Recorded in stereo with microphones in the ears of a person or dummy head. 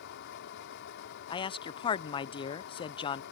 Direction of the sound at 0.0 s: 60° left (ahead or behind).